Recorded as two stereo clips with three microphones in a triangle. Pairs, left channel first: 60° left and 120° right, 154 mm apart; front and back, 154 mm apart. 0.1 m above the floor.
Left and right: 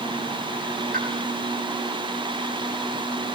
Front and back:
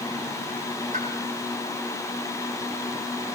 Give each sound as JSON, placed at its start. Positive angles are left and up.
{"t": 0.9, "sound": "a pop", "azimuth_deg": -145, "distance_m": 5.5}